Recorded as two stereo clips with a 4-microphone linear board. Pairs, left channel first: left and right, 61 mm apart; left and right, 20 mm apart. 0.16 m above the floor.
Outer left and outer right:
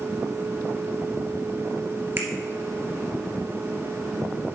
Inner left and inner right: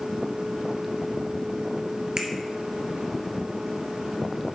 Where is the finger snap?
35° right (ahead or behind), 1.9 m.